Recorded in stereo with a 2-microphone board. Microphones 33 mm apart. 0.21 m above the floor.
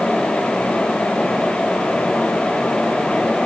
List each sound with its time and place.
Only background noise.